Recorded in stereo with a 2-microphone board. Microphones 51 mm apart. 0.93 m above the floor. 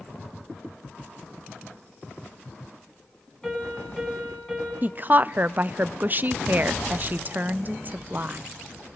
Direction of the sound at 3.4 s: 5° left (ahead or behind).